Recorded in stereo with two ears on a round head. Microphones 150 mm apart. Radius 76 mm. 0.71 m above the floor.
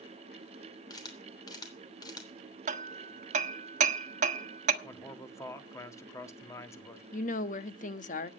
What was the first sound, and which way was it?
A camera shutter, 25° left (ahead or behind).